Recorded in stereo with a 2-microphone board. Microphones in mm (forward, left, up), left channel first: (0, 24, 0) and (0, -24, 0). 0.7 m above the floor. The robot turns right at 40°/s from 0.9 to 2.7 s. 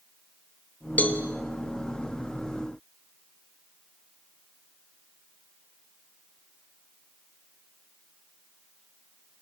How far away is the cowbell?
About 1.7 m.